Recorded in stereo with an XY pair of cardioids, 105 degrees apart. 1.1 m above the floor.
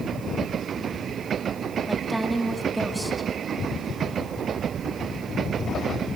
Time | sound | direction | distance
1.9 | a woman speaking | 5° right | 2.5 m